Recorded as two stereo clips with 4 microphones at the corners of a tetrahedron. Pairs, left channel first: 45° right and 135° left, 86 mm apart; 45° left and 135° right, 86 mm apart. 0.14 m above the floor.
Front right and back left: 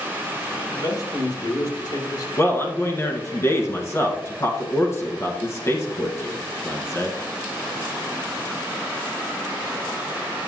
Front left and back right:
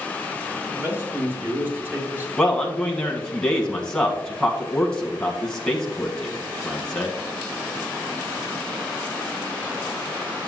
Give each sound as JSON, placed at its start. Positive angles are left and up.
{"t": 0.6, "sound": "a man speaking", "azimuth_deg": -75, "distance_m": 3.0}
{"t": 2.4, "sound": "a man speaking", "azimuth_deg": -25, "distance_m": 1.3}